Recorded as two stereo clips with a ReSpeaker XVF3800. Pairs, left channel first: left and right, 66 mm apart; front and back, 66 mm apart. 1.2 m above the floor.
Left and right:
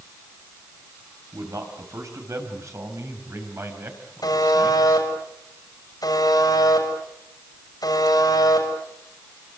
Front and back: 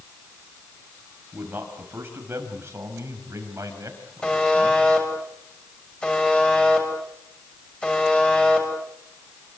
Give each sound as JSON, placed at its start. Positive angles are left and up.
{"t": 1.3, "sound": "a man speaking", "azimuth_deg": -115, "distance_m": 6.0}
{"t": 4.2, "sound": "a buzzer", "azimuth_deg": 75, "distance_m": 6.5}